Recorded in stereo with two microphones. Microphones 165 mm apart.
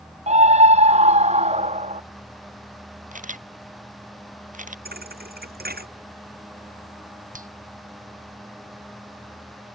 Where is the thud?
70° right (ahead or behind).